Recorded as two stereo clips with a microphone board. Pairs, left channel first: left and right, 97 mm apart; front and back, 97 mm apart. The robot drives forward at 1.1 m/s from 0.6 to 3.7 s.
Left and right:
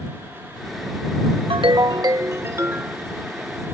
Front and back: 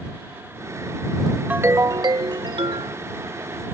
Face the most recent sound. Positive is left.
turn(degrees=-165)